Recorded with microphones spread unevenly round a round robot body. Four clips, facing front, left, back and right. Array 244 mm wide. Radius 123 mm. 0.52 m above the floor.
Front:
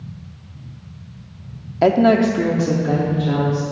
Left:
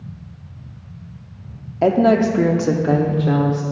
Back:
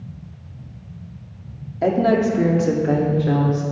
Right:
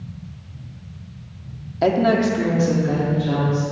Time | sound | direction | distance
1.8 | a woman speaking | 25° left | 0.7 m